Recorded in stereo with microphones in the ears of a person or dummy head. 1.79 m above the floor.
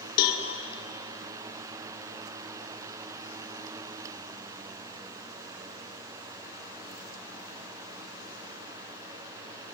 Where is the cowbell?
60° left (ahead or behind), 1.1 m.